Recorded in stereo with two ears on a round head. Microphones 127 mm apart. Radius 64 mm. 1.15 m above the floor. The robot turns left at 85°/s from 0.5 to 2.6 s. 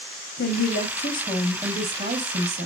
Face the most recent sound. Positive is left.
turn(degrees=-90)